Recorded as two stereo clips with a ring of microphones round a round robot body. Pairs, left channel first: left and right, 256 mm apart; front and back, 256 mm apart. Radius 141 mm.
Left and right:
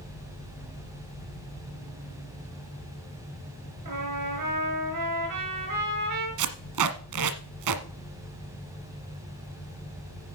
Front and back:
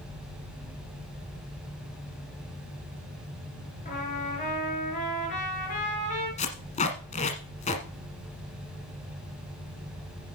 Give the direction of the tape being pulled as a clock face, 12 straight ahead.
2 o'clock.